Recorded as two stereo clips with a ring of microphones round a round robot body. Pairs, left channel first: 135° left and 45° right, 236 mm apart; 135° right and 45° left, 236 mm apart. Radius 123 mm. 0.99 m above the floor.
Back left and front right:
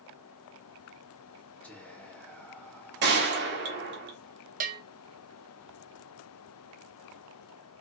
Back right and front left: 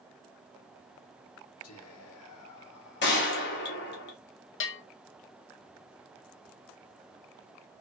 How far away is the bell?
About 0.8 m.